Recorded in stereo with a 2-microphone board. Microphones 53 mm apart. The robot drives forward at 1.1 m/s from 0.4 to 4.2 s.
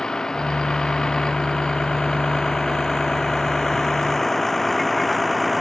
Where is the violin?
No violin in this recording.